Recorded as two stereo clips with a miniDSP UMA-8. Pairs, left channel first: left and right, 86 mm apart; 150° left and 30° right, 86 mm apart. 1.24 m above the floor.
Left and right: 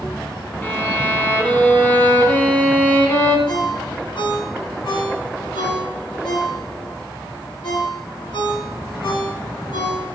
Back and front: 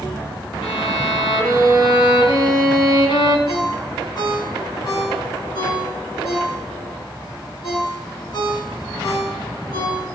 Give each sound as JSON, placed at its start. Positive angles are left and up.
{"t": 0.6, "sound": "a violin", "azimuth_deg": 155, "distance_m": 2.5}
{"t": 3.5, "sound": "a ringtone", "azimuth_deg": 115, "distance_m": 8.5}